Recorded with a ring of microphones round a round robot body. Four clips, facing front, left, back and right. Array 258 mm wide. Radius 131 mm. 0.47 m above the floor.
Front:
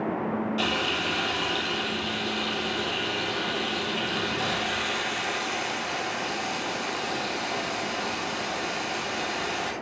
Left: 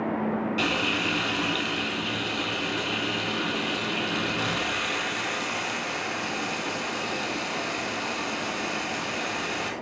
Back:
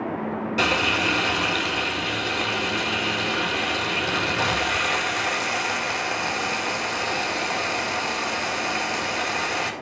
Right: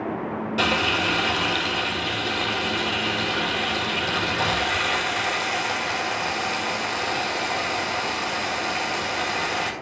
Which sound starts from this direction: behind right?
Frying, at 0.6 s.